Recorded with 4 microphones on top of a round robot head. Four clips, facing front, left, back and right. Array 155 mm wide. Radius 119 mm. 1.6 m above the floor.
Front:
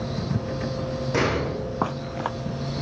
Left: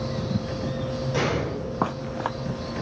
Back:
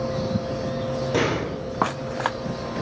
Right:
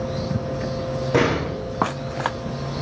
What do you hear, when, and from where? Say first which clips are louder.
1.1 s a door slam: right 6 dB, front 1 dB; 110° right, 2.5 m